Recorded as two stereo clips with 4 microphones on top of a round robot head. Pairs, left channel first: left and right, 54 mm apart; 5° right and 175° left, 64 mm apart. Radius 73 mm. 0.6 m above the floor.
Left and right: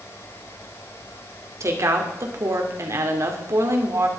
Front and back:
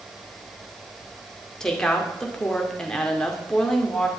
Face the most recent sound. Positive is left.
turn(degrees=-85)